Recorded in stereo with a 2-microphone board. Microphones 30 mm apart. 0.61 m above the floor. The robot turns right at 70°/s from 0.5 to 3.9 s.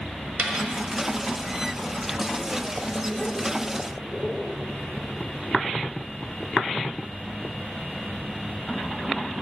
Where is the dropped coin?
60° right (ahead or behind), 1.3 m; by 0.7 s 75° right (ahead or behind), 1.3 m.